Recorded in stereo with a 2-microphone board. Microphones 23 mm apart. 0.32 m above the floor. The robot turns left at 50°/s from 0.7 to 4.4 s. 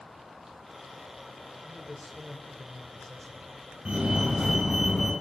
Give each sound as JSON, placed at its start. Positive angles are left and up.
{"t": 1.6, "sound": "a man speaking", "side_deg": -15, "distance_m": 0.9}
{"t": 3.9, "sound": "a fire alarm", "side_deg": -45, "distance_m": 5.0}